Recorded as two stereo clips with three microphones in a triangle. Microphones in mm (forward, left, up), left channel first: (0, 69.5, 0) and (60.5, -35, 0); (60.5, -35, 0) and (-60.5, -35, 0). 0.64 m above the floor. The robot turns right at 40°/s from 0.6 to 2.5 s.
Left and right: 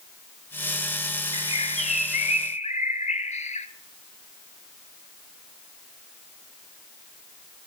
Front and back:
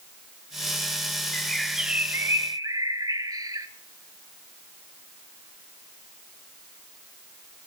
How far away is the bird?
About 0.7 m.